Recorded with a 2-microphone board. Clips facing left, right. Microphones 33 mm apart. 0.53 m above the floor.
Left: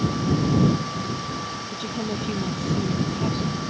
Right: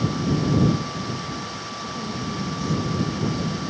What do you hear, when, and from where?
1.7 s a woman speaking: 55° left (ahead or behind); by 3.6 s 50° left (ahead or behind)